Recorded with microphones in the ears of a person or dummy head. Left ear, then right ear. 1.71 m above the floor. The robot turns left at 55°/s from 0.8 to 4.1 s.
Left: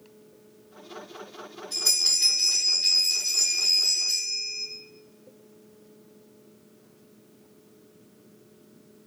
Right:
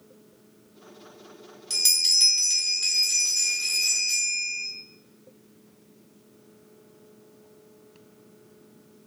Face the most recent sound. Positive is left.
turn(degrees=155)